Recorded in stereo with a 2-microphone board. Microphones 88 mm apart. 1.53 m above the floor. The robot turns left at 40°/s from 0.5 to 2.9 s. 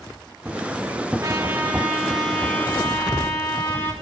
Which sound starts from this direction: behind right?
A trumpet, at 1.2 s.